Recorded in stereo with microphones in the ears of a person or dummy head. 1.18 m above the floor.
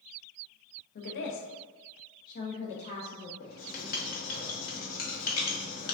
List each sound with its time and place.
0.9 s a woman speaking: 45° left (ahead or behind), 0.6 m; by 3.3 s 30° left (ahead or behind), 1.0 m
3.4 s writing: 50° left (ahead or behind), 0.9 m